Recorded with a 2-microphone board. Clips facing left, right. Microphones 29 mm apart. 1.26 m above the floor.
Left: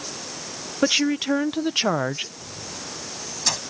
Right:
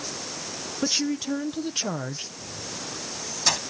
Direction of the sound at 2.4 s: 15° right (ahead or behind).